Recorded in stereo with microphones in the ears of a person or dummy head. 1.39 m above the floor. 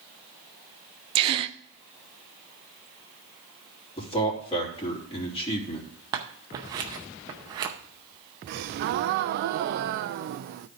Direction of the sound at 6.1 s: 20° right (ahead or behind).